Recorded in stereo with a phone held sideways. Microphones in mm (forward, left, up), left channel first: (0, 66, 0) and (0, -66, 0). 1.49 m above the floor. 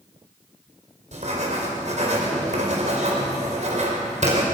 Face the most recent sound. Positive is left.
turn(degrees=-60)  # may be behind; listen again after turning